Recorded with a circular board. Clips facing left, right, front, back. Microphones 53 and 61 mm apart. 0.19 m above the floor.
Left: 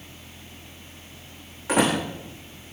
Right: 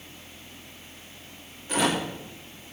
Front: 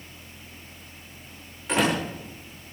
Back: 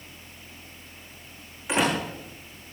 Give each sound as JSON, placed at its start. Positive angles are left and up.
{"t": 1.7, "sound": "a door slam", "azimuth_deg": 100, "distance_m": 8.0}